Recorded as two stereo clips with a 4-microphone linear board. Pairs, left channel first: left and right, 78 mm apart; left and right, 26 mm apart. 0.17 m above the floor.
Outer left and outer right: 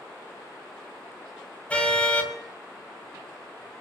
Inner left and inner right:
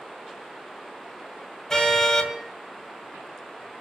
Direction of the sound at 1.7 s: 15° left (ahead or behind).